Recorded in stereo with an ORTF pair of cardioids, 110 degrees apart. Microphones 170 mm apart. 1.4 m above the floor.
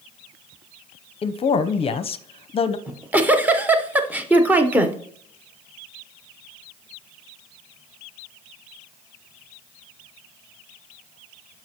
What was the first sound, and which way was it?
A man speaking, 35° left.